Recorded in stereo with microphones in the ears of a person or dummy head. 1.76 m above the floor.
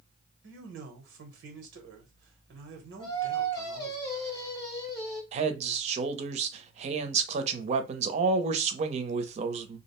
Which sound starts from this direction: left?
Singing, at 3.0 s.